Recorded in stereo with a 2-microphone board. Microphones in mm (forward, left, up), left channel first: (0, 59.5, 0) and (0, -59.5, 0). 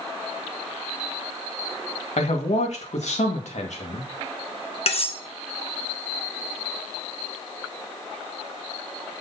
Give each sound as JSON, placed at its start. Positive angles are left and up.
{"t": 2.2, "sound": "a man speaking", "side_deg": 70, "distance_m": 1.7}
{"t": 4.9, "sound": "cutlery clinking", "side_deg": 55, "distance_m": 0.9}